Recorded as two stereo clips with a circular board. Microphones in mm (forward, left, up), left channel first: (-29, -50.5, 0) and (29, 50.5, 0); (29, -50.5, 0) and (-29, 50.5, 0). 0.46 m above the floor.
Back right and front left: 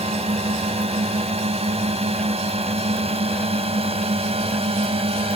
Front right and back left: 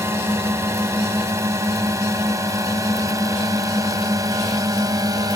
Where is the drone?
55° left; by 5.4 s 70° left.